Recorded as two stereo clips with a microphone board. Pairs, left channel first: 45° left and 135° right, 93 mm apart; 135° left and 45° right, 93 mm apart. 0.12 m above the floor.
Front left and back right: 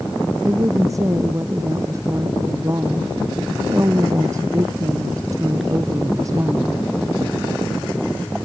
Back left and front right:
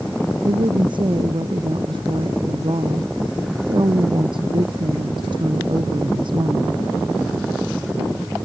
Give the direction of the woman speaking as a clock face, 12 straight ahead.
3 o'clock.